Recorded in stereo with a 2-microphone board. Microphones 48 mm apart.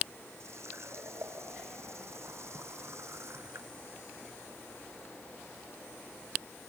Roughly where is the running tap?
Right.